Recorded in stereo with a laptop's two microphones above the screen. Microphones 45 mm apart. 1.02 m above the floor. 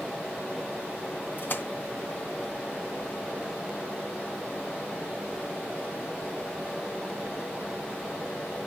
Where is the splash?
45° left (ahead or behind), 1.3 m.